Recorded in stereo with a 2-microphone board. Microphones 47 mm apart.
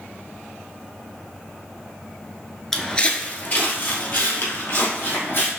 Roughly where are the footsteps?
Centre.